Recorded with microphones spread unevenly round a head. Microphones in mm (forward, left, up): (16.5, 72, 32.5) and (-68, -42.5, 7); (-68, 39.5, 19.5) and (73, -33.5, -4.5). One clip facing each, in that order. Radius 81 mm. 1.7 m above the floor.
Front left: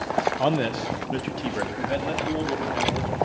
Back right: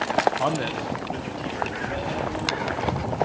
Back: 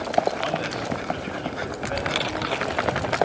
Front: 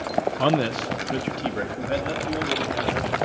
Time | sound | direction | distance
0.4 | a man speaking | 15° right | 0.9 m